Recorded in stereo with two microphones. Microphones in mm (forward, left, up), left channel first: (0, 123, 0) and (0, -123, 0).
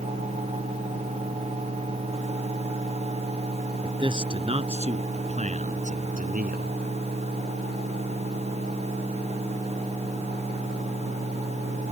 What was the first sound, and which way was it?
A man speaking, 20° right (ahead or behind).